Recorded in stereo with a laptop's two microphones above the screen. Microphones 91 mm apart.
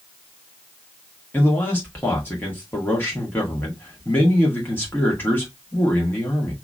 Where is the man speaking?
20° left (ahead or behind), 1.6 m.